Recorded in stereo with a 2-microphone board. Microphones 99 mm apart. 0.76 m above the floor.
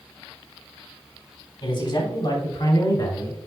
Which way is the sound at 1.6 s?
55° left (ahead or behind).